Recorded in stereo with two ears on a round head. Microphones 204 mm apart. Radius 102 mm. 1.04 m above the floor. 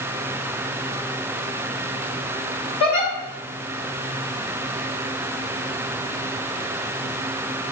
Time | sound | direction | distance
2.8 | a giggle | 30° left (ahead or behind) | 1.4 m